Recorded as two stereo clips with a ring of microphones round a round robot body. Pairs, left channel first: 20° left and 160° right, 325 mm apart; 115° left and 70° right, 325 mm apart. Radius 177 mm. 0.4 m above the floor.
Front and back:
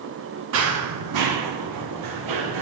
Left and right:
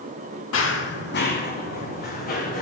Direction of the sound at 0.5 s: 155° left.